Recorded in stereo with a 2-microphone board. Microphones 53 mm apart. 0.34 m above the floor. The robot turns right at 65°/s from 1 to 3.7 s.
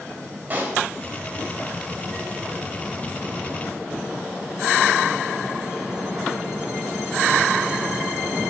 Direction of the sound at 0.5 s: 35° right (ahead or behind).